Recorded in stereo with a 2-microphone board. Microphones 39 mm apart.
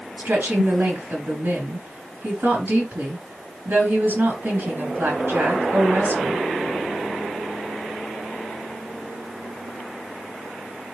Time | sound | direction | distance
0.2 | a woman speaking | 55° right (ahead or behind) | 3.5 m